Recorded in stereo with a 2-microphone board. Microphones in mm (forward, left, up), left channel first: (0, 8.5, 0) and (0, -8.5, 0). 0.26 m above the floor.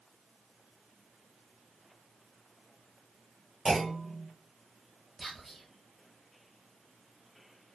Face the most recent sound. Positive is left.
turn(degrees=25)  # may be behind; listen again after turning